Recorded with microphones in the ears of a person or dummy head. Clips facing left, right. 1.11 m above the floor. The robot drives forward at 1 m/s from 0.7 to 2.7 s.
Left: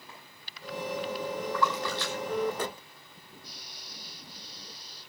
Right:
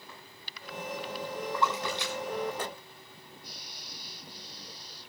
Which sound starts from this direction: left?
A clap, at 0.1 s.